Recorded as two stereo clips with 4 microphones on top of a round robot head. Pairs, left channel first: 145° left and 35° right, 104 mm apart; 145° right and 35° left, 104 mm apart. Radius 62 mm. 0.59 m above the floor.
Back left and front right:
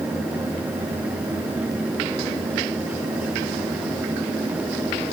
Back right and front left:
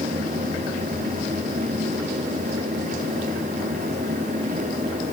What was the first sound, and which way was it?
Only background noise.